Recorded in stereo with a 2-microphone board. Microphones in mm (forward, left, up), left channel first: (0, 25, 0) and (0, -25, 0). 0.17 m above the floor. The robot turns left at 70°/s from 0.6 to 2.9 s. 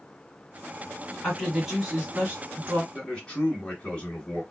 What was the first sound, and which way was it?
A woman speaking, 15° left.